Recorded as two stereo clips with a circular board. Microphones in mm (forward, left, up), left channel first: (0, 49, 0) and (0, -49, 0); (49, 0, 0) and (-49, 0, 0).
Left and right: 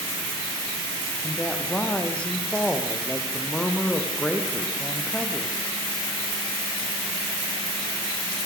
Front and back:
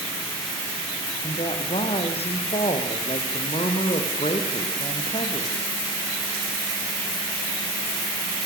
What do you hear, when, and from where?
1.2 s a woman speaking: 10° left, 4.5 m